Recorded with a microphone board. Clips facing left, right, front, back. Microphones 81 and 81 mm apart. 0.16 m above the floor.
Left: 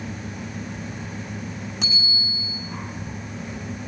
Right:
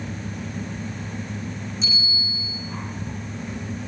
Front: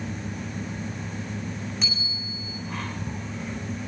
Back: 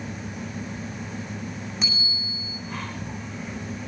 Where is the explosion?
I don't hear an explosion.